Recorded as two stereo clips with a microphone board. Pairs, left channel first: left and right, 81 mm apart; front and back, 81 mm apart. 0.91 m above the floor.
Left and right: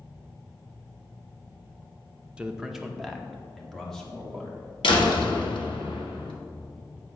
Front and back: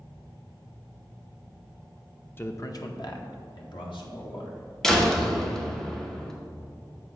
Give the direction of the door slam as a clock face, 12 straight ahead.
9 o'clock.